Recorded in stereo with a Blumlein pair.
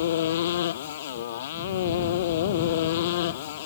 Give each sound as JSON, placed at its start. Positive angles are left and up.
{"t": 0.0, "sound": "a motorcycle", "azimuth_deg": 60}